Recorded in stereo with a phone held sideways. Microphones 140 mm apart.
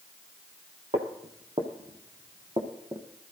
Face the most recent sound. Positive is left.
turn(degrees=-30)  # may be behind; listen again after turning